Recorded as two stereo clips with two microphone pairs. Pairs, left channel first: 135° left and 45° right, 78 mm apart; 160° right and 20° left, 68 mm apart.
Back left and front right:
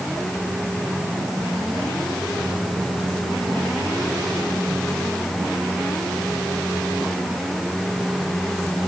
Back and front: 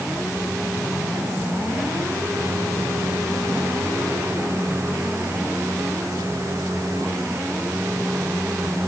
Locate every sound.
Only background noise.